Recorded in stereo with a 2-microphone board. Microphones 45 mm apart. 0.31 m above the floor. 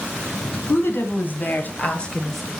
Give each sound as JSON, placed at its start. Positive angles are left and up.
{"t": 0.7, "sound": "a woman speaking", "side_deg": 60, "distance_m": 2.5}